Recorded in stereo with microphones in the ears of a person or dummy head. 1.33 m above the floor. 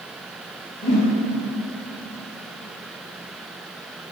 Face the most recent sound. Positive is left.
turn(degrees=45)  # may be behind; listen again after turning